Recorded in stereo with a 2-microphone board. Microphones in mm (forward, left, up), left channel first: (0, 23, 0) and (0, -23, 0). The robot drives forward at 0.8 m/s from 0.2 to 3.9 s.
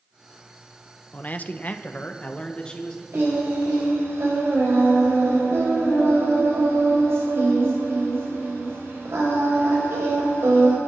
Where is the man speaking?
35° left (ahead or behind), 0.8 m; by 3.0 s 20° left (ahead or behind), 1.6 m.